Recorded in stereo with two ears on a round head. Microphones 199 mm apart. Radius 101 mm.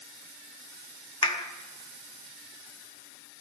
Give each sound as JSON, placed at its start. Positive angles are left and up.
{"t": 1.2, "sound": "a clap", "side_deg": 20, "distance_m": 1.0}